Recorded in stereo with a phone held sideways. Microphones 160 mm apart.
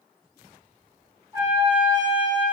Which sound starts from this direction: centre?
A trumpet, at 1.3 s.